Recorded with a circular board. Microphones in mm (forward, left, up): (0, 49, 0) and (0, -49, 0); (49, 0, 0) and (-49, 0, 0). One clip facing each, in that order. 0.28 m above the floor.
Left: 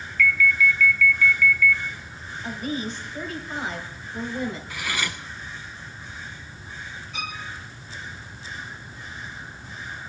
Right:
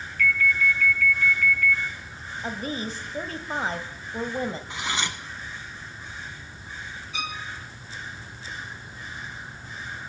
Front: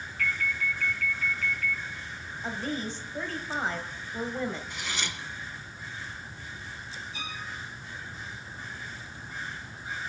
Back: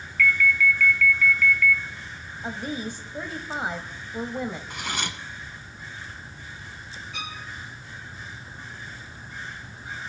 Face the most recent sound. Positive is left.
turn(degrees=-175)